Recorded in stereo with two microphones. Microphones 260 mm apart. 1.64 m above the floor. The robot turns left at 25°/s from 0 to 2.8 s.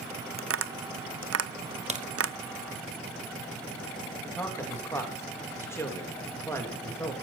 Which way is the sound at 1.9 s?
25° right (ahead or behind).